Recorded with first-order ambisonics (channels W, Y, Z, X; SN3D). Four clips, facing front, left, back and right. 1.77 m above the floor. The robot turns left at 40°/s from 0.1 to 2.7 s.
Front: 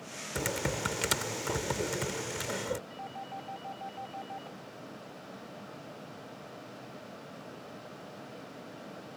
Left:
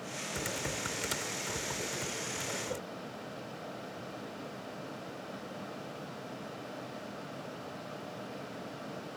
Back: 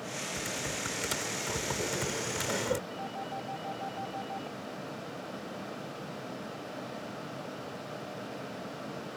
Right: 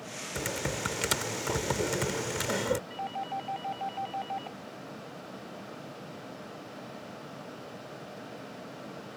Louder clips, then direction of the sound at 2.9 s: Right 8 dB, back 4 dB; 95° right.